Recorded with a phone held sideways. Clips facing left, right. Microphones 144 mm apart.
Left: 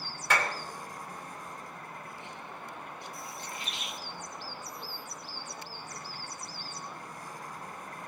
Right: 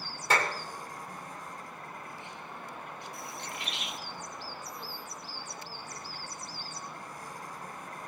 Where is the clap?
35° right (ahead or behind), 3 m.